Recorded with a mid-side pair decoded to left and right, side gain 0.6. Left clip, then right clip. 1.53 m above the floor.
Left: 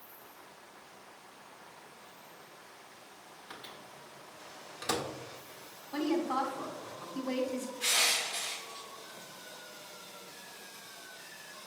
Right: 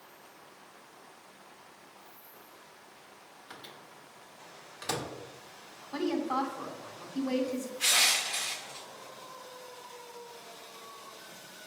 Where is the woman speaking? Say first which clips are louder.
Right 1 dB; 10° right, 1.3 m.